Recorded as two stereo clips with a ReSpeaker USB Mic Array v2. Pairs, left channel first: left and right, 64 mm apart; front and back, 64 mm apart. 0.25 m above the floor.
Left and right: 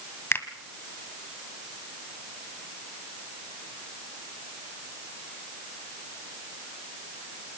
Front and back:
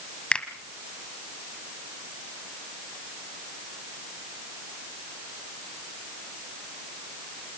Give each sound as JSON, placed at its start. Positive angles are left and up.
{"t": 0.3, "sound": "a finger snap", "azimuth_deg": 65, "distance_m": 1.4}